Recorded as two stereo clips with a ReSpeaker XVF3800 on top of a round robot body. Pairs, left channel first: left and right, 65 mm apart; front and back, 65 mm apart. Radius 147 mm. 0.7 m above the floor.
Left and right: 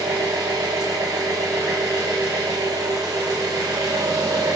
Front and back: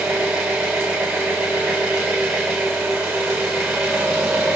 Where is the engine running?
110° right, 0.8 m.